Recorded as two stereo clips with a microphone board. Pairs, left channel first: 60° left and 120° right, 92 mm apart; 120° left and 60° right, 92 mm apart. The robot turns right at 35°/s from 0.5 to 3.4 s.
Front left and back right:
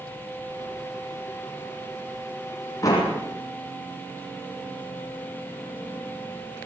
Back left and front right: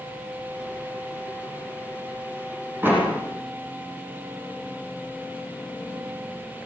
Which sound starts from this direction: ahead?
A door slam, at 2.8 s.